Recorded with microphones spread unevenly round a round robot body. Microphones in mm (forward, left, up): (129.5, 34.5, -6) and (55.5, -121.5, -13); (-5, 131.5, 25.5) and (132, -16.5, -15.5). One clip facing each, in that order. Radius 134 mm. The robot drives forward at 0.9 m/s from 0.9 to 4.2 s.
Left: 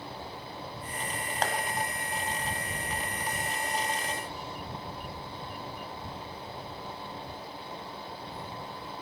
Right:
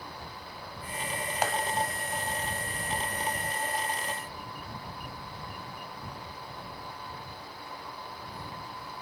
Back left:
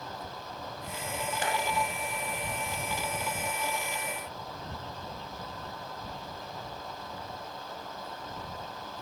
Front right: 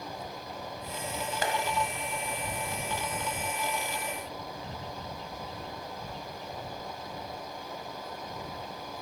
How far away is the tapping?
About 1.6 m.